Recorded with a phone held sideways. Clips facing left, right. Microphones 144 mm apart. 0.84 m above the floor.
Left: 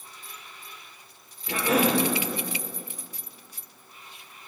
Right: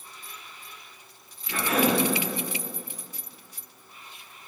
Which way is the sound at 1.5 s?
65° left (ahead or behind).